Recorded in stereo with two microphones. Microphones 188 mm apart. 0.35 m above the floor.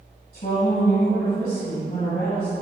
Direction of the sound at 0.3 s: 55° left (ahead or behind).